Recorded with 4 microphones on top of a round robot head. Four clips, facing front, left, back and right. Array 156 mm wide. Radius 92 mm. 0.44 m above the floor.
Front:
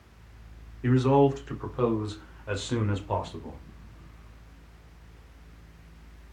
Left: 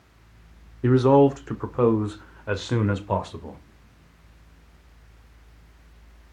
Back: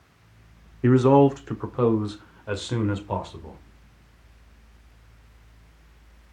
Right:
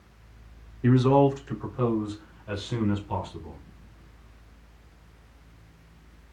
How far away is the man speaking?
About 1.8 m.